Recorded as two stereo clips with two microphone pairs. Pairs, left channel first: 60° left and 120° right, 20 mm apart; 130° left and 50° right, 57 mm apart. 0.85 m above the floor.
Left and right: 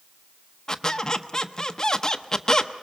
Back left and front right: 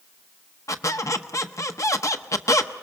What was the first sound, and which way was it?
A squeak, 120° left.